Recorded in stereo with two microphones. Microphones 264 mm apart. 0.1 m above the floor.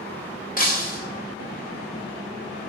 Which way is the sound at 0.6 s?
30° left (ahead or behind).